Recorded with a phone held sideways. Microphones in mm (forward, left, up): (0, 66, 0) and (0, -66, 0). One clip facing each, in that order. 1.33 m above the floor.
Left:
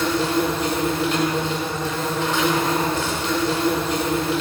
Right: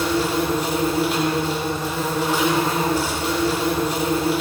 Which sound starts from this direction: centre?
An insect, at 0.0 s.